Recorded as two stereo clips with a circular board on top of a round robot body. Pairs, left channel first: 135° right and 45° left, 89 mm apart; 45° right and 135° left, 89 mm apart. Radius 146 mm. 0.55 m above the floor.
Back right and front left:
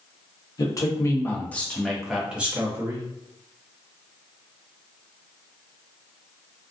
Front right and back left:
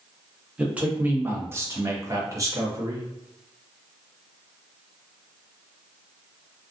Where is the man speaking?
150° right, 1.0 m; by 3.1 s 95° left, 1.2 m.